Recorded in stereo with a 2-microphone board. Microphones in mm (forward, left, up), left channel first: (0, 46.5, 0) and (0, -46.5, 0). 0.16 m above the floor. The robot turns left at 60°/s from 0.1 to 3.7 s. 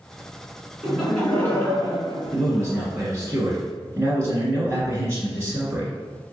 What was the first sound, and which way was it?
Laughter, 165° right.